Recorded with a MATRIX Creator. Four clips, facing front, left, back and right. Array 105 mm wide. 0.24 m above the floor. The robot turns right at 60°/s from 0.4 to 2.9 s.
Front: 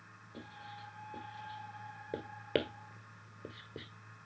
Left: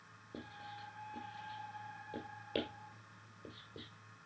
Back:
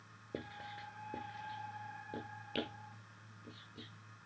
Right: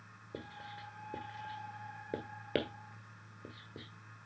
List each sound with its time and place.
0.3 s writing: 170° right, 1.6 m; by 3.9 s 20° right, 1.6 m